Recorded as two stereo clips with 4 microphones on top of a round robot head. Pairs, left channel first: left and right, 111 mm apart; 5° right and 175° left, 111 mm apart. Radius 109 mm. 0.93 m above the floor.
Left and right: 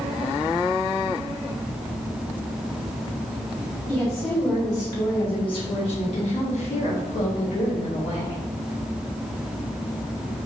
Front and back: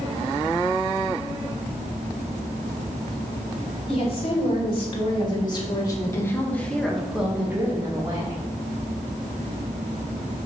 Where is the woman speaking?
25° left, 3.5 m; by 8.4 s 125° left, 2.5 m.